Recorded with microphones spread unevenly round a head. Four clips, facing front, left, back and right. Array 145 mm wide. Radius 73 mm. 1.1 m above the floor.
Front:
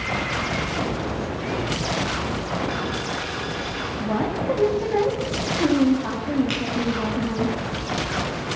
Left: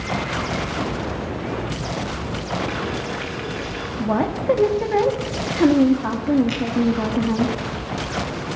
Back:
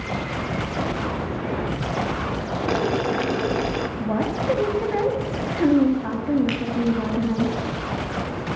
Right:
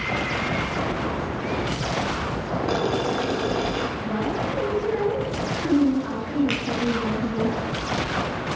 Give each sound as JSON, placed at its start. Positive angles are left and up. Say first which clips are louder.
{"t": 2.7, "sound": "boiling", "louder": "right 3 dB, back 5 dB", "azimuth_deg": -145, "distance_m": 0.7}
{"t": 4.0, "sound": "a woman speaking", "louder": "left 4 dB, front 2 dB", "azimuth_deg": 100, "distance_m": 2.5}
{"t": 6.5, "sound": "a finger snap", "louder": "left 3 dB, back 1 dB", "azimuth_deg": -135, "distance_m": 6.5}